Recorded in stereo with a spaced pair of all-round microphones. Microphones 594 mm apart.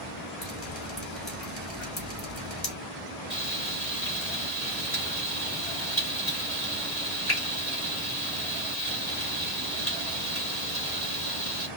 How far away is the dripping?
About 3 m.